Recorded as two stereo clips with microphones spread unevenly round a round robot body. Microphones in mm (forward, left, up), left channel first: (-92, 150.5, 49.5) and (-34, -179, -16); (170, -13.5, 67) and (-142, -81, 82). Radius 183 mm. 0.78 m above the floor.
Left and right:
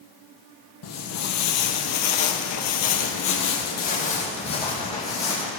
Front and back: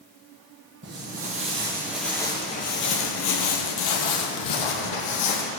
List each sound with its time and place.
0.8 s footsteps: 135° left, 1.8 m; by 5.5 s 20° left, 2.5 m